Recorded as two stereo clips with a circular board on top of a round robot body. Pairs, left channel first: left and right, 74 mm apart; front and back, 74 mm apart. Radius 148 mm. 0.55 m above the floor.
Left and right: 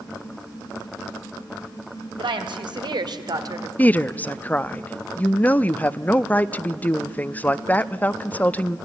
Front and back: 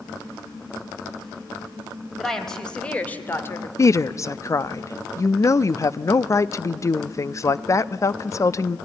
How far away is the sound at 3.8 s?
About 0.8 m.